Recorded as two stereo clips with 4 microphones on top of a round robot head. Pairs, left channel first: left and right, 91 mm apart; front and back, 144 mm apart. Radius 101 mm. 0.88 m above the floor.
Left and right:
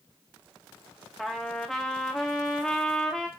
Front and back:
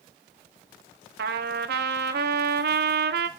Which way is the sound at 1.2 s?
Straight behind.